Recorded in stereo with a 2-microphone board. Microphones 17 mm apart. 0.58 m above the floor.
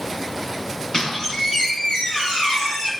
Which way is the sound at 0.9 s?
55° left (ahead or behind).